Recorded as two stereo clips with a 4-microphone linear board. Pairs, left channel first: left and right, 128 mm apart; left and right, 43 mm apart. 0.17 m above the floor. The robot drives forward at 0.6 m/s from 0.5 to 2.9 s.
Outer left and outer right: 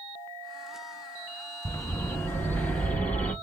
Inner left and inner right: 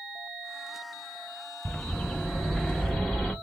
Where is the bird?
25° left (ahead or behind), 0.6 m; by 3.3 s 10° left (ahead or behind), 1.2 m.